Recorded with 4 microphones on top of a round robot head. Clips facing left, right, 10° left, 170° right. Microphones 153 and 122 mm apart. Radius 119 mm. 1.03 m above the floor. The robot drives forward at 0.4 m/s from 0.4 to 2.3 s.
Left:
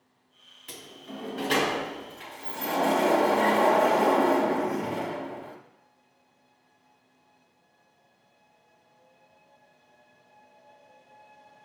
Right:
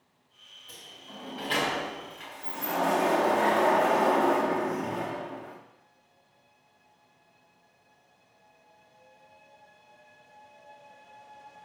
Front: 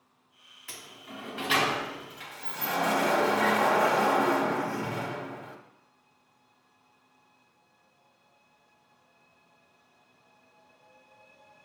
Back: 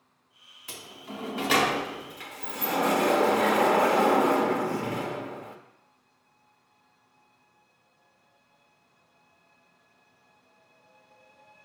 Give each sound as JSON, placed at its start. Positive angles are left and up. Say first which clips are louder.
{"t": 0.7, "sound": "a sliding door", "louder": "left 7 dB, back 4 dB", "azimuth_deg": 120, "distance_m": 0.5}